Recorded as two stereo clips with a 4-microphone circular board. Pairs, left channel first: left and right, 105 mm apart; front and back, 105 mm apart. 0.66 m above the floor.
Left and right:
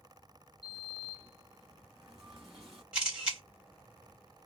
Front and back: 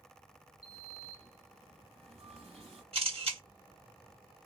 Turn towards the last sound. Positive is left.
turn(degrees=-170)